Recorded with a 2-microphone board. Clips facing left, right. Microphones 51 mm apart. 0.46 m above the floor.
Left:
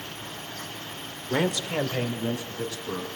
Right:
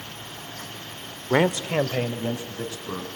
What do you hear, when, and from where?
1.3 s a man speaking: 35° right (ahead or behind), 1.0 m; by 3.1 s 15° right (ahead or behind), 3.5 m